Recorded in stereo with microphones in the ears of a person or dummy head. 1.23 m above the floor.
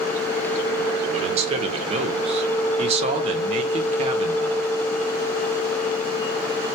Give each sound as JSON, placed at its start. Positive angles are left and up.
{"t": 1.1, "sound": "a man speaking", "side_deg": -30, "distance_m": 0.6}